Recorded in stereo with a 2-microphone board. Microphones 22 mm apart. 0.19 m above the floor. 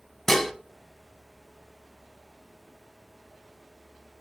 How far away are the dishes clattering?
About 0.9 m.